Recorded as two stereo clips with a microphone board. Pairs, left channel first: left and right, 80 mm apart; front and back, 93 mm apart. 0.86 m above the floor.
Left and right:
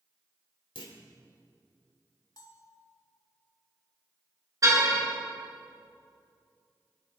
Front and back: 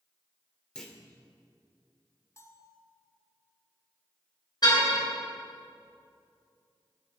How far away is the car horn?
About 4.5 m.